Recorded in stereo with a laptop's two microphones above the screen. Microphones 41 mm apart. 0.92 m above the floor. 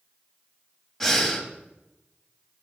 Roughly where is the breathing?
Centre.